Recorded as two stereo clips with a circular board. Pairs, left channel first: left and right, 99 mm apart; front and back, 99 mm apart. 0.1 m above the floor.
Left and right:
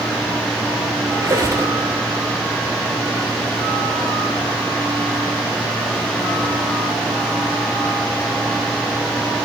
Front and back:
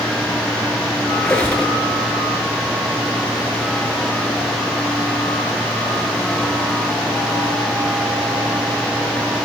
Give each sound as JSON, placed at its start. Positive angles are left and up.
{"t": 1.1, "sound": "a squeak", "azimuth_deg": -70, "distance_m": 0.9}